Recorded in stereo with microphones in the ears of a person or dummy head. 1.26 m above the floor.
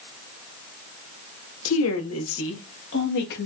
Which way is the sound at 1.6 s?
80° left.